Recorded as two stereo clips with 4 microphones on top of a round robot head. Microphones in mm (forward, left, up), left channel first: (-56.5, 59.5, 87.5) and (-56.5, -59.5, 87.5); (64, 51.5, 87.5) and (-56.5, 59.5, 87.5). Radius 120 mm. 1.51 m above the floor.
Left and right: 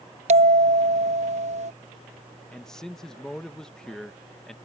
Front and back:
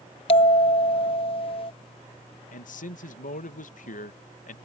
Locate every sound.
0.3 s a bell: 55° right
2.5 s a man speaking: 5° left